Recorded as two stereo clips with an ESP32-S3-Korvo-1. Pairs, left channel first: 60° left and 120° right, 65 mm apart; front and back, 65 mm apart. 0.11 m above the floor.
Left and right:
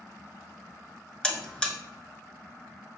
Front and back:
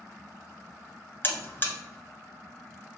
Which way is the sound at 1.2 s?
5° right.